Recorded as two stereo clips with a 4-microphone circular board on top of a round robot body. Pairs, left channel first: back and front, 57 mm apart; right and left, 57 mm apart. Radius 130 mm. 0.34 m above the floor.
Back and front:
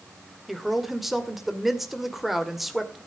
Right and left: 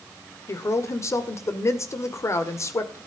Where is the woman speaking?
90° right, 2 m.